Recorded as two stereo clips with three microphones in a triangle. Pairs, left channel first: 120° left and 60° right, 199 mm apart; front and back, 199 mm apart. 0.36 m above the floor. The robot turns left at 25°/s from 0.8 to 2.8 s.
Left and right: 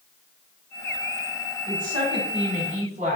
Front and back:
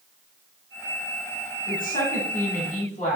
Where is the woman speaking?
Straight ahead, 1.2 m; by 3.2 s 30° right, 1.2 m.